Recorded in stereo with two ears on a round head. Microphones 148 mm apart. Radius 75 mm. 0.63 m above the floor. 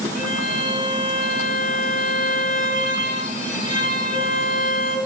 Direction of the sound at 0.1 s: 55° left (ahead or behind).